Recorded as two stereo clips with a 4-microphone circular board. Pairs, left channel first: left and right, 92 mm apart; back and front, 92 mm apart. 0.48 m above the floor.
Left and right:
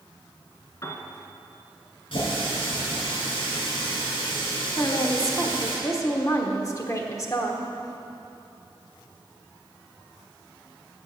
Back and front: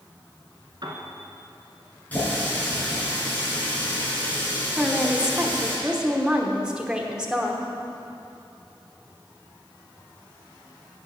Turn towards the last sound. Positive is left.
turn(degrees=75)